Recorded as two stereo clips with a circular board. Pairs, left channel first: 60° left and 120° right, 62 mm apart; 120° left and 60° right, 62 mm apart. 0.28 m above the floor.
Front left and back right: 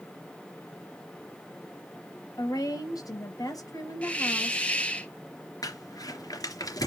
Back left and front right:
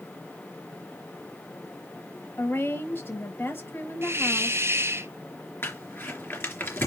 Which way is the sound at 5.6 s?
70° left.